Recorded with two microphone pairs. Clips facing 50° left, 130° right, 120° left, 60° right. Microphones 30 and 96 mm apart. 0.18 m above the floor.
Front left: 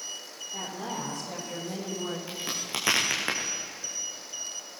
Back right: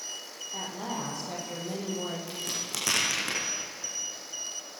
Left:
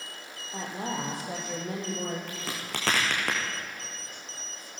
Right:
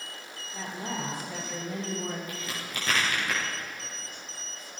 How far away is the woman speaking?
About 8 m.